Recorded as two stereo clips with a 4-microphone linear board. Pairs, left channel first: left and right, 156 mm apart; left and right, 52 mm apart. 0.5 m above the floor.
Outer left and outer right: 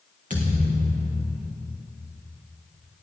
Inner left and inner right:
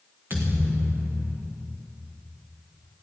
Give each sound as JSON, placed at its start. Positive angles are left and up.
{"t": 0.3, "sound": "a thud", "side_deg": -50, "distance_m": 3.5}